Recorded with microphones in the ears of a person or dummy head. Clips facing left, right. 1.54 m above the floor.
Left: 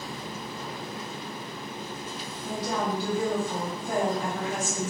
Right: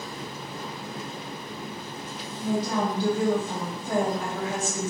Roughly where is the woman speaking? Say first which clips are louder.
Right 4 dB; right.